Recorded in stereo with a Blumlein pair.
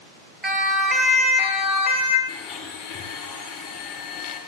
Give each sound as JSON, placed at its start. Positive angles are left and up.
{"t": 0.4, "sound": "a siren", "azimuth_deg": -10, "distance_m": 2.0}
{"t": 2.3, "sound": "a blender", "azimuth_deg": 15, "distance_m": 9.5}